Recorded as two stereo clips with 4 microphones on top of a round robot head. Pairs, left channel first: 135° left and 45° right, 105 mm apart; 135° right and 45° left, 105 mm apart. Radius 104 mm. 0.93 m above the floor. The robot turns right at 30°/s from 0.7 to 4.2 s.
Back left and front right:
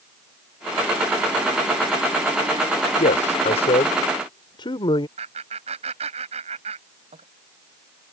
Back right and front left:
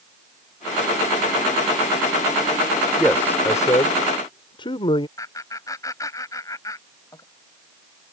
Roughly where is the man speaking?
Behind left.